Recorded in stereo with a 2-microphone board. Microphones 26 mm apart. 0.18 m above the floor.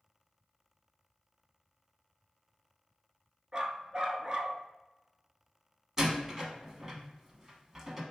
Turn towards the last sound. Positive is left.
turn(degrees=-20)  # may be behind; listen again after turning